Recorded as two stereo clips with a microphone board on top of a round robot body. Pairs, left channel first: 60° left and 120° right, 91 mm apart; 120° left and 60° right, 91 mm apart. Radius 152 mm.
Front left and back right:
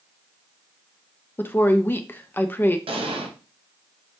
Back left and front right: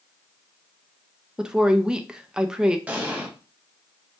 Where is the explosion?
135° right, 0.9 m.